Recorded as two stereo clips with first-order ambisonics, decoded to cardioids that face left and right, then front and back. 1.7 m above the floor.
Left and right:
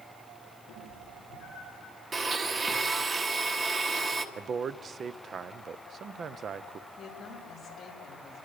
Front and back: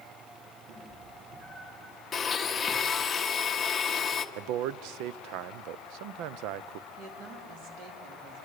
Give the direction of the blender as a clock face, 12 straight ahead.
2 o'clock.